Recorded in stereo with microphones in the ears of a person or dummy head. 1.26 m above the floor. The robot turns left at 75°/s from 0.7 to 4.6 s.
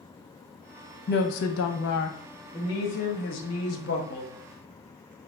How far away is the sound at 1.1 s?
About 0.7 m.